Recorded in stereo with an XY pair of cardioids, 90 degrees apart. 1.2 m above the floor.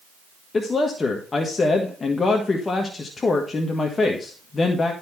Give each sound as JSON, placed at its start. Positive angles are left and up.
{"t": 0.5, "sound": "a man speaking", "azimuth_deg": 40, "distance_m": 1.5}